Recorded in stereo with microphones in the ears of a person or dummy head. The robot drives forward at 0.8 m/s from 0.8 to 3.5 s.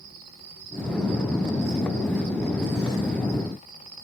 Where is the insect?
60° right (ahead or behind), 2.5 m; by 4.0 s 40° right (ahead or behind), 3 m.